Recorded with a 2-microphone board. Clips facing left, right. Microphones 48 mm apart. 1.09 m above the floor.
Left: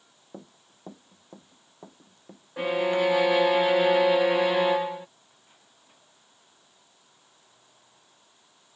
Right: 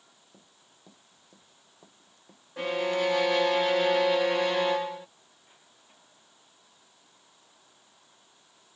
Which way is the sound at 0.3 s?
50° left (ahead or behind).